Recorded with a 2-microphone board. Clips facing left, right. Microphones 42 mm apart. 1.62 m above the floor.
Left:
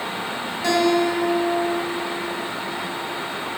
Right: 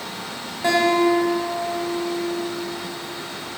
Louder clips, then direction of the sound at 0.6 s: Right 2 dB; 30° right (ahead or behind).